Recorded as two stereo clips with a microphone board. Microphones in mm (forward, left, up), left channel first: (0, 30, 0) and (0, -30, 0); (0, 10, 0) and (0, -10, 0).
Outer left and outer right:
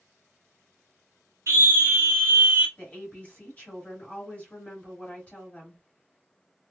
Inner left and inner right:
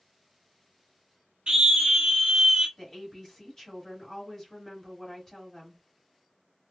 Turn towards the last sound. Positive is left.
turn(degrees=25)  # may be behind; listen again after turning